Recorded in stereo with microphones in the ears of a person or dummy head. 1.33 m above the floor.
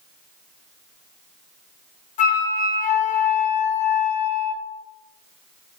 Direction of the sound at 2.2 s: 35° left (ahead or behind).